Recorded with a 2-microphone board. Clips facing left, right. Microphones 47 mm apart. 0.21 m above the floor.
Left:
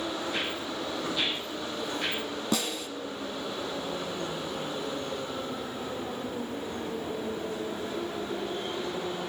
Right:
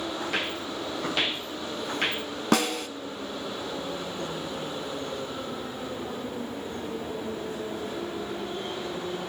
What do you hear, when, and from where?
0.2 s footsteps: 75° right (ahead or behind), 4 m; by 2.2 s 55° right (ahead or behind), 2.5 m
2.5 s a snare drum: 55° right (ahead or behind), 0.6 m